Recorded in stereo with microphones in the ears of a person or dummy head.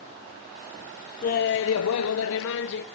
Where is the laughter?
35° left (ahead or behind), 0.7 m; by 2.9 s 55° left (ahead or behind), 1.1 m.